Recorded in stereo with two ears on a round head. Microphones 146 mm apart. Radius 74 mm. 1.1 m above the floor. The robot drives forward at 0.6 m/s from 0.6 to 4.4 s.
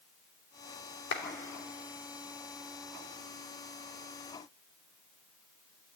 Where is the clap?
85° left, 2 m.